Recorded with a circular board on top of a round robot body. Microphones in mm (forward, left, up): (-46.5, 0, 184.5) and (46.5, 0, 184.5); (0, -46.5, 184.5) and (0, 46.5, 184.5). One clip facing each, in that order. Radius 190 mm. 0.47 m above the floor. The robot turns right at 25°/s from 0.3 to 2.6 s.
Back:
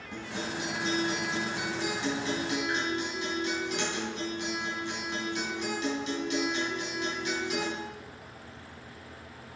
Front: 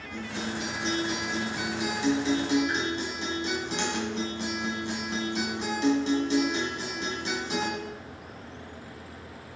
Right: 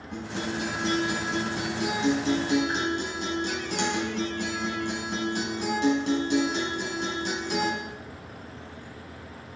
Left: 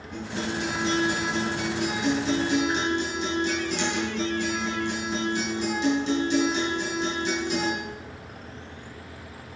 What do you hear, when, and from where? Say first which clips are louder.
0.1 s a guitar: front 2 dB, left 1 dB; 115° right, 3 m; by 7.7 s 55° right, 3 m